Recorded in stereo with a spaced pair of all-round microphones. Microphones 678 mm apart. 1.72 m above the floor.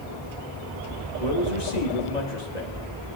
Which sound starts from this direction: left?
A man speaking, at 1.2 s.